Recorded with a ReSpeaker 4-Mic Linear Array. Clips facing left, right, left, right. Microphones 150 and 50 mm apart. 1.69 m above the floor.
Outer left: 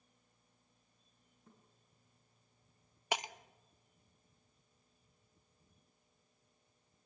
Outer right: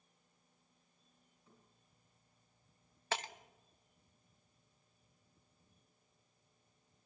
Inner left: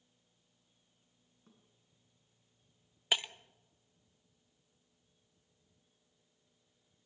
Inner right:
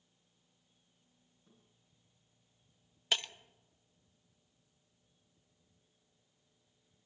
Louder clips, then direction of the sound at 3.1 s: Outer left 2 dB, inner left 1 dB; 15° left (ahead or behind).